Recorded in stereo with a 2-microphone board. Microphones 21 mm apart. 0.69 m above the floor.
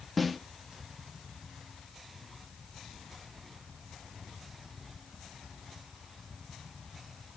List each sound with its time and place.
0.2 s a snare drum: 5° right (ahead or behind), 1.2 m